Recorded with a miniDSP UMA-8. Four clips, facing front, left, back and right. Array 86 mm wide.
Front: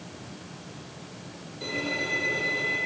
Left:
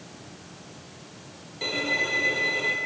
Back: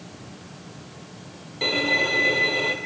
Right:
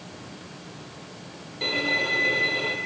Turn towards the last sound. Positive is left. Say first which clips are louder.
# right 1 dB, back 7 dB
turn(degrees=-170)